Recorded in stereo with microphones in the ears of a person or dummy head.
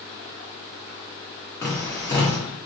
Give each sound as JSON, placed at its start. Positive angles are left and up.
{"t": 1.6, "sound": "tapping", "side_deg": 15, "distance_m": 1.0}